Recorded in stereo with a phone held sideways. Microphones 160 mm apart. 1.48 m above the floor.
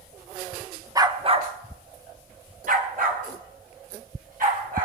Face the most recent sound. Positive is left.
turn(degrees=-60)  # may be behind; listen again after turning